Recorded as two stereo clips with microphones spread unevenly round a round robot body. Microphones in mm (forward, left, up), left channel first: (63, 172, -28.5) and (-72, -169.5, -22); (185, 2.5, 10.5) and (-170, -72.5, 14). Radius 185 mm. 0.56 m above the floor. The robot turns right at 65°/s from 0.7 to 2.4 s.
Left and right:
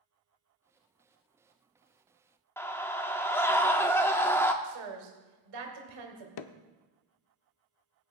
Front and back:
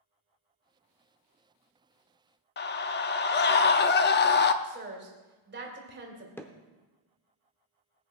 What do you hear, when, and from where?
2.6 s a scream: 5° right, 0.6 m
4.6 s a woman speaking: 110° right, 2.5 m
6.4 s hammering: 95° left, 0.6 m